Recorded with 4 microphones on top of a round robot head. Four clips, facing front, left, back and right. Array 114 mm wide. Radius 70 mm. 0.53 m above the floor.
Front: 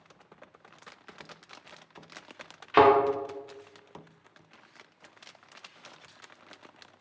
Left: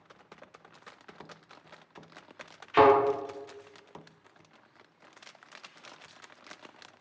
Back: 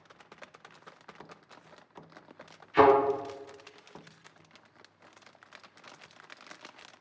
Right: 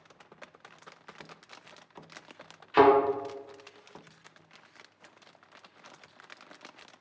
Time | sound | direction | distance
2.7 | a thud | 15° right | 0.7 m